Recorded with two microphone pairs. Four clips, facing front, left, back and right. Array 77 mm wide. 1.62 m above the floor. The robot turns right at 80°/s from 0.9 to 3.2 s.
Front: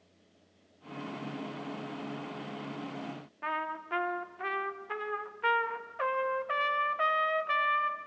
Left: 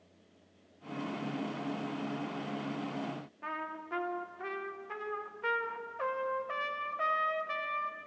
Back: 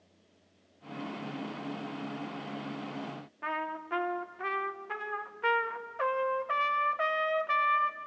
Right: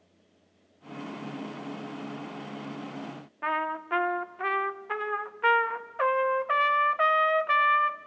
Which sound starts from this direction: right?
A trumpet, at 3.4 s.